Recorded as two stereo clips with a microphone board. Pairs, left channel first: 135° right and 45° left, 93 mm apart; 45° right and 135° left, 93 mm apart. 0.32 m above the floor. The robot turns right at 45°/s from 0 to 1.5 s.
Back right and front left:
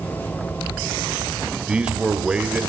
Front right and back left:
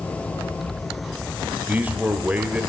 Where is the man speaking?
105° left, 0.8 m.